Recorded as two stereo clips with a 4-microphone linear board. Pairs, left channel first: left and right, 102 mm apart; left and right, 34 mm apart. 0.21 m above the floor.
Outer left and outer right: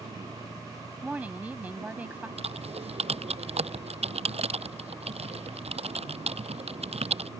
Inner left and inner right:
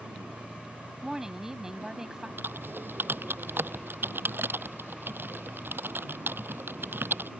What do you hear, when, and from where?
0.0 s a vehicle: 75° right (ahead or behind)
1.0 s a woman speaking: 15° right (ahead or behind)
2.4 s typing on a keyboard: 80° right